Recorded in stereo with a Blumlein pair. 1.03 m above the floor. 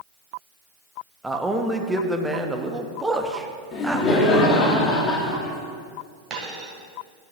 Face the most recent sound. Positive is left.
turn(degrees=-25)